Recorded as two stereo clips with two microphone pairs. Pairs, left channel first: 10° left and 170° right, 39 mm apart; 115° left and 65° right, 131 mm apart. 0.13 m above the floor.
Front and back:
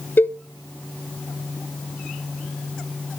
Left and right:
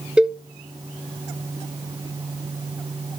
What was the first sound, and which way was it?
A cowbell, 20° left.